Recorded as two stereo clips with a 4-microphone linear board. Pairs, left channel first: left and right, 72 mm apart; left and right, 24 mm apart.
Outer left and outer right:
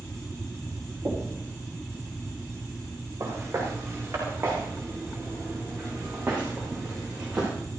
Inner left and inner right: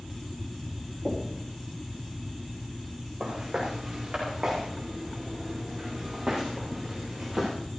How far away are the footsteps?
About 7.5 m.